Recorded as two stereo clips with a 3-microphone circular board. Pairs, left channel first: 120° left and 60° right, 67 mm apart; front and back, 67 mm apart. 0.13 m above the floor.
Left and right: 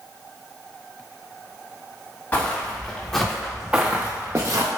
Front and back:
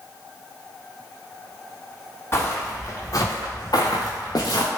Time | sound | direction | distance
2.3 | footsteps | 55° left | 1.2 m